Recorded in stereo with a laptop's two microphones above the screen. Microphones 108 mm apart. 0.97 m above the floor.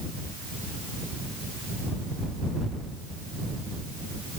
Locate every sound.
Only background noise.